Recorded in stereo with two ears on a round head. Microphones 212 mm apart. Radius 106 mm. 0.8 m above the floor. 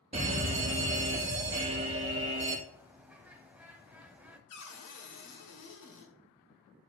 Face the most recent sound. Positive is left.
turn(degrees=75)  # may be behind; listen again after turning